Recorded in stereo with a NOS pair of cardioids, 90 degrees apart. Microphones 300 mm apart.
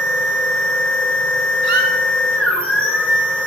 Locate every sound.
0.0 s a machine running: 5° left, 4.5 m
1.6 s a squeak: 70° right, 2.5 m